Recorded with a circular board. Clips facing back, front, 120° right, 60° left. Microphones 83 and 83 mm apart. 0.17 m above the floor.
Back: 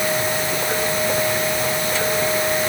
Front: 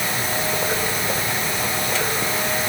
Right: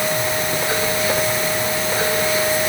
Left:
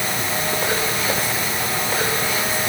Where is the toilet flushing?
I don't hear a toilet flushing.